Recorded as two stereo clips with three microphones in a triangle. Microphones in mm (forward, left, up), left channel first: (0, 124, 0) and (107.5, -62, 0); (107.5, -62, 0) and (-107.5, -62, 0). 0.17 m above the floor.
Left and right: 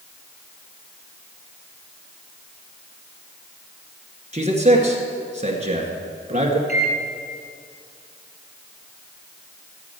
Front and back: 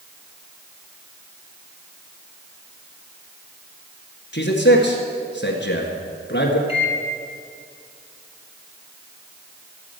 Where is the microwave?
50° right, 1.4 m.